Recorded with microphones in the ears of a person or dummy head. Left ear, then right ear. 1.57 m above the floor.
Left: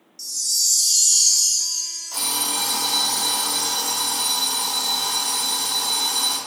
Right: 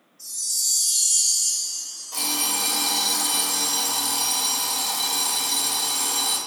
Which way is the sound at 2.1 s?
55° left (ahead or behind).